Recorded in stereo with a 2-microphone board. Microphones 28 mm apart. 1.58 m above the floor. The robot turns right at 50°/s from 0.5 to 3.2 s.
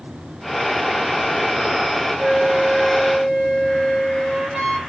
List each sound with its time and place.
2.2 s a flute: 120° right, 1.2 m; by 4.8 s 70° right, 1.2 m